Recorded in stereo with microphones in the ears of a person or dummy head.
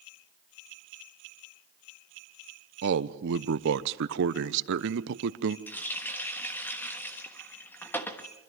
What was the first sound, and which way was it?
A man speaking, 65° right (ahead or behind).